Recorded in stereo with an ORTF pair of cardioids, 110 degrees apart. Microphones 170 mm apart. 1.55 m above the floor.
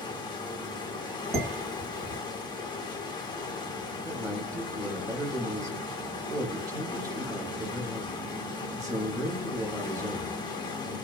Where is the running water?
25° left, 0.9 m.